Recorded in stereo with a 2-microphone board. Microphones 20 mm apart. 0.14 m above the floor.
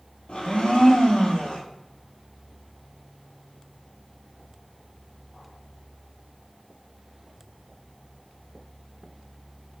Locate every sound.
0.3 s a blender: 55° left (ahead or behind), 1.4 m